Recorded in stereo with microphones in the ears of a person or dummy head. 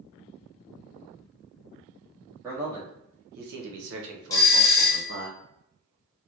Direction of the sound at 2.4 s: 10° right (ahead or behind).